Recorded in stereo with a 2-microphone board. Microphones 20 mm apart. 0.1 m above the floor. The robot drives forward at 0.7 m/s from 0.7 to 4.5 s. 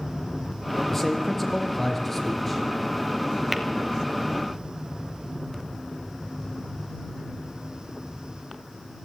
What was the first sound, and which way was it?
A man speaking, 15° left (ahead or behind).